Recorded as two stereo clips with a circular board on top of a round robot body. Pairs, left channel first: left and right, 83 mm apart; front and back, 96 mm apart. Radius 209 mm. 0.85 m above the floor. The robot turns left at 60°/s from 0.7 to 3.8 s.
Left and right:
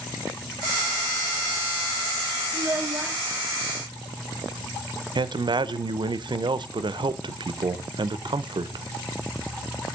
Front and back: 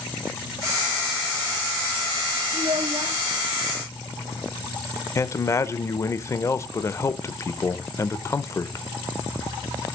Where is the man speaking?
60° right, 0.6 m.